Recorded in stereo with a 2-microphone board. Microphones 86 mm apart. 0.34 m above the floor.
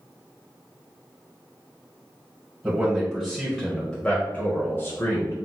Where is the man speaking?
15° right (ahead or behind), 1.3 m; by 5.3 s 45° left (ahead or behind), 1.2 m.